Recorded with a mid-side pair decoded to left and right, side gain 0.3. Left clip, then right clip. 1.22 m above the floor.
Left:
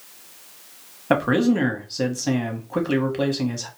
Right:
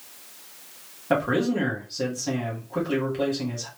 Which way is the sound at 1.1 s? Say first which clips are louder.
Left 3 dB; 65° left.